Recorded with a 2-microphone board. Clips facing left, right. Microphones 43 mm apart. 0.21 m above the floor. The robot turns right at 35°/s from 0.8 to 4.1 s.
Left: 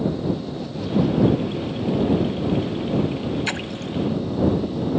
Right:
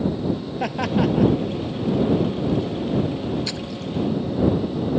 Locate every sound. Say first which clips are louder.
0.6 s laughter: right 2 dB; 70° right (ahead or behind); by 1.3 s 60° right (ahead or behind)
3.5 s a splash: left 2 dB; 45° left (ahead or behind); by 3.9 s 60° left (ahead or behind)